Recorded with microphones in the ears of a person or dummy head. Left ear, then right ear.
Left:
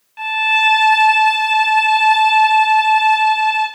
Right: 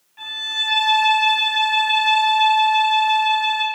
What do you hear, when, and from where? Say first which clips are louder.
0.2 s a violin: left 10 dB; 60° left (ahead or behind), 3 m